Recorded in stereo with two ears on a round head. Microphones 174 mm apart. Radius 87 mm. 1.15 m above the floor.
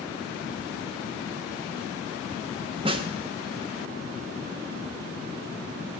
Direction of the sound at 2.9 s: 30° right (ahead or behind).